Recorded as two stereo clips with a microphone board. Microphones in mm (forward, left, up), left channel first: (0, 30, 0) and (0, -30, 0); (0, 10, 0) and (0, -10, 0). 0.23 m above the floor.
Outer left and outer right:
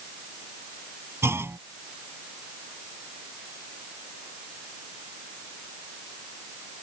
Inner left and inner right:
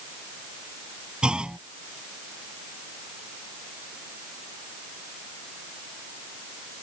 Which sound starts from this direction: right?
A clunk, at 1.2 s.